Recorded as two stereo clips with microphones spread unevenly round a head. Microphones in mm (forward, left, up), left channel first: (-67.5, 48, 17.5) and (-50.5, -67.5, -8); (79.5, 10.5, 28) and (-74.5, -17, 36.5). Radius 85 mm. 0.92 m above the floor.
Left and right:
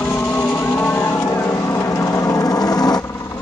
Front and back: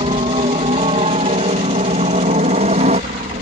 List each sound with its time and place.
0.0 s a helicopter: 165° left; by 3.4 s 155° left